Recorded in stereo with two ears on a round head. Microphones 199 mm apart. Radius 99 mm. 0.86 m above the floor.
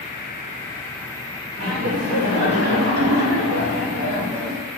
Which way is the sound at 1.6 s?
65° right (ahead or behind).